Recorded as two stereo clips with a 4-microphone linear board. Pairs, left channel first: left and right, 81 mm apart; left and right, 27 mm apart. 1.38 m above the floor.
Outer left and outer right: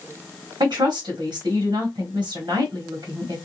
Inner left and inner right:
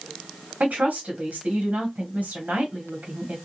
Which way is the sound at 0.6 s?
65° right (ahead or behind).